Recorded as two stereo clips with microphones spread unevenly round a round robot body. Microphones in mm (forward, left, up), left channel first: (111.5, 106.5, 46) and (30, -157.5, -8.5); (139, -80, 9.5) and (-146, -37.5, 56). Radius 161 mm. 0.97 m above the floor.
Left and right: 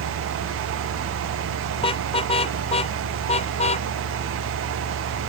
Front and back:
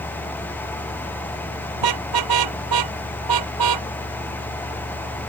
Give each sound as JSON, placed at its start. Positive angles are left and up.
{"t": 1.8, "sound": "a car horn", "azimuth_deg": 145}